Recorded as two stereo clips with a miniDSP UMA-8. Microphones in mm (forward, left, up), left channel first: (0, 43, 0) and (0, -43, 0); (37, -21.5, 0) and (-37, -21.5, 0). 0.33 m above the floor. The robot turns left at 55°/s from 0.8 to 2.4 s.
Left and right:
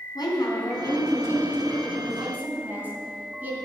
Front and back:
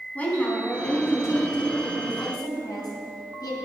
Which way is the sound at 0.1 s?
65° left.